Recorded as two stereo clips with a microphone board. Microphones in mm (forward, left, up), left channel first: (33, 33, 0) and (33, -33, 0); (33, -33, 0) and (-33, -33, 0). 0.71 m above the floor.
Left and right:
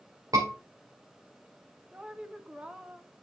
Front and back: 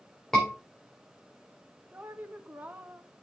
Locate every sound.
0.3 s a scream: 85° right, 2.5 m
1.9 s a woman speaking: 150° right, 0.8 m